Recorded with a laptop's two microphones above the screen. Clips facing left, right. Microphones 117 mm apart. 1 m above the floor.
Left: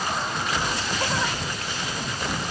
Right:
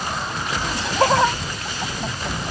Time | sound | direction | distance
0.6 | laughter | 70° right (ahead or behind) | ?